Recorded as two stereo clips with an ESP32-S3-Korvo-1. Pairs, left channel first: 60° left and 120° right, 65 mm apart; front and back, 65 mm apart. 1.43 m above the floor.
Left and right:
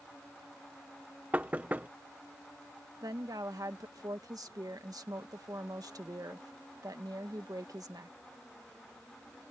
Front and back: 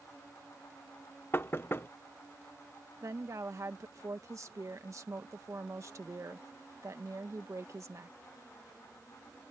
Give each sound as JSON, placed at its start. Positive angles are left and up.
{"t": 1.3, "sound": "knocking", "azimuth_deg": -55}
{"t": 3.0, "sound": "a woman speaking", "azimuth_deg": -140}